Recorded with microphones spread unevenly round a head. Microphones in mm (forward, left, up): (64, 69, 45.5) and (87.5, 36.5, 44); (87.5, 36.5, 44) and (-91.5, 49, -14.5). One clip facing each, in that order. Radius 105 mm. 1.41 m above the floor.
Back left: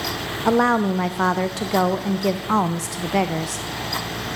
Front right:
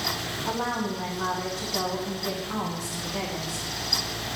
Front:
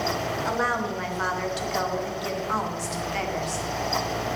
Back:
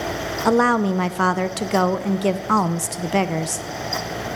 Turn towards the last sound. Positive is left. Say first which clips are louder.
# back left 12 dB, back 14 dB
turn(degrees=155)